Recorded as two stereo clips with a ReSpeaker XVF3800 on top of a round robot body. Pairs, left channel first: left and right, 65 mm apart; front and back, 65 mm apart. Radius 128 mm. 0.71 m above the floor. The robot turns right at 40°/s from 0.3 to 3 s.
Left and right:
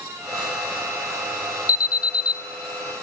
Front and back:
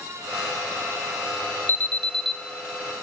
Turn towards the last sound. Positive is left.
turn(degrees=115)